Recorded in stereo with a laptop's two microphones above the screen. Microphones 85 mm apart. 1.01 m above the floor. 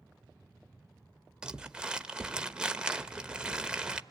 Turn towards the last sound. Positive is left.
turn(degrees=-10)  # may be behind; listen again after turning